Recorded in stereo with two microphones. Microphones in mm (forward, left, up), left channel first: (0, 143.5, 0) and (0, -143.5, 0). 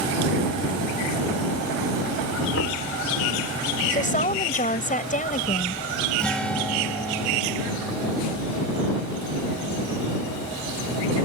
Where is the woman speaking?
25° left (ahead or behind).